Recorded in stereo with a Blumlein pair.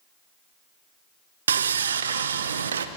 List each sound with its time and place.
1.5 s sawing: 65° right, 0.9 m